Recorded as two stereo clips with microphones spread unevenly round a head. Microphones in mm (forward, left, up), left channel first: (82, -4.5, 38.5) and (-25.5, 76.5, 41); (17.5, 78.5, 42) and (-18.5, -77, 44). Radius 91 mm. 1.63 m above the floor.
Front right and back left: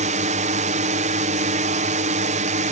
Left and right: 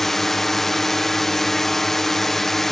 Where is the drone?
165° left.